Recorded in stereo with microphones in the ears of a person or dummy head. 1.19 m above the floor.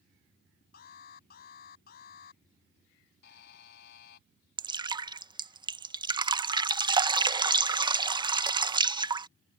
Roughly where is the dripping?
Right.